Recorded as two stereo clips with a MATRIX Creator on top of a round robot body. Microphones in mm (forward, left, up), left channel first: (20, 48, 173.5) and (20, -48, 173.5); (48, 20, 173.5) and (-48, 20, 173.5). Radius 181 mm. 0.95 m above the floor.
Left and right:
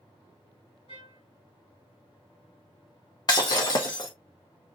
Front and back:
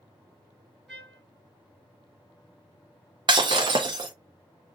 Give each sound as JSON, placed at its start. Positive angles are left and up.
{"t": 0.9, "sound": "a trumpet", "azimuth_deg": 90, "distance_m": 4.5}
{"t": 3.3, "sound": "breaking glass", "azimuth_deg": 140, "distance_m": 0.5}